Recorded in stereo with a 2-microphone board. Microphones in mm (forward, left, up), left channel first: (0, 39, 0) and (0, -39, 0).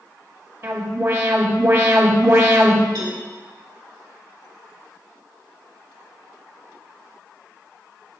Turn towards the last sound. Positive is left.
turn(degrees=-85)